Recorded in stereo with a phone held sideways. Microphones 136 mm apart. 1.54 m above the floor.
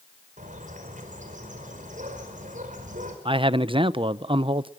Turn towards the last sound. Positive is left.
turn(degrees=-40)  # may be behind; listen again after turning